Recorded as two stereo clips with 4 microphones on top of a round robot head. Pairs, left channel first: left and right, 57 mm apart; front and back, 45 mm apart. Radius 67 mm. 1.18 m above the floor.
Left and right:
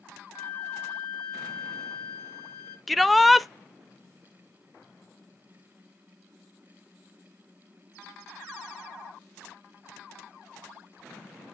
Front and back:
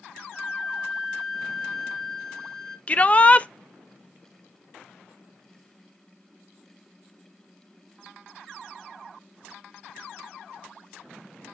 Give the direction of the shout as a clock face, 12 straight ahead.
12 o'clock.